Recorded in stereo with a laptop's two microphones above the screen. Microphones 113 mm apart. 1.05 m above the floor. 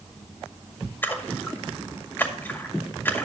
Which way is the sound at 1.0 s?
20° left (ahead or behind).